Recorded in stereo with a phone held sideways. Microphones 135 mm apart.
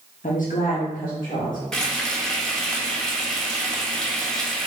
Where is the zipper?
No zipper in this recording.